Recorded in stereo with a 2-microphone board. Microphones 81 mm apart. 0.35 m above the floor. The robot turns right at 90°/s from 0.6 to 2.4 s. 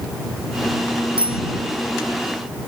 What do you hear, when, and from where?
1.2 s a bicycle bell: 85° right; by 1.4 s 70° right (ahead or behind)